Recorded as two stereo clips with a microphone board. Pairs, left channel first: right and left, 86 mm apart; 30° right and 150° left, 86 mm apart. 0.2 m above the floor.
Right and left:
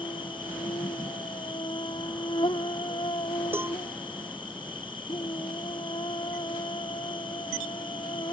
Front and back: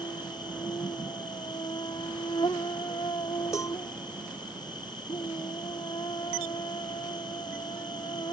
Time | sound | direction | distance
0.0 | an insect | 65° right | ?
3.5 | a cowbell | 25° left | ?